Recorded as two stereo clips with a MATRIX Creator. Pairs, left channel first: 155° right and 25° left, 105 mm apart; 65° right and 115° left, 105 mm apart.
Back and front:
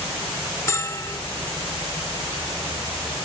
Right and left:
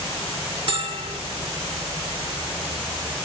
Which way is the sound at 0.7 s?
140° left.